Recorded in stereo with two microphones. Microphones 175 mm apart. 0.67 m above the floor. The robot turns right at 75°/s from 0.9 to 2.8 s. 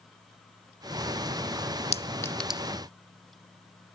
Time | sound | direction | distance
1.9 | a clink | 35° left (ahead or behind) | ?